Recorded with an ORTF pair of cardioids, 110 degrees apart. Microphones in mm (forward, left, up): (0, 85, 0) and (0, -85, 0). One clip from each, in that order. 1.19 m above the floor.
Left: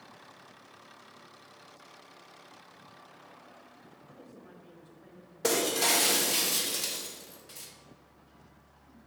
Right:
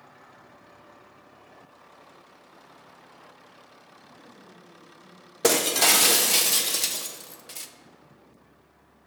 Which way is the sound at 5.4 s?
40° right.